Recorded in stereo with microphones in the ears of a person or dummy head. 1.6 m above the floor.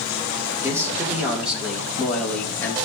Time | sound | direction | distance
0.6 | a man speaking | 15° right (ahead or behind) | 3.5 m